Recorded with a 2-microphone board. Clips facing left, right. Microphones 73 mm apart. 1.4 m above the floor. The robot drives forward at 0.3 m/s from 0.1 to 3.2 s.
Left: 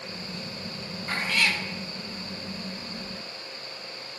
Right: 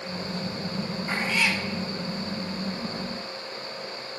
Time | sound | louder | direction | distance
1.1 | a cat meowing | even | 10° right (ahead or behind) | 1.0 m